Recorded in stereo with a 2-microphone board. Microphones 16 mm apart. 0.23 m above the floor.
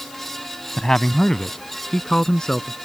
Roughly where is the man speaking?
Left.